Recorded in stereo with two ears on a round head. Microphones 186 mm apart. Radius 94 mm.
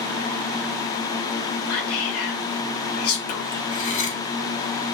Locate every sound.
1.7 s whispering: 75° left (ahead or behind), 3 m
3.7 s cutlery clinking: 35° left (ahead or behind), 3 m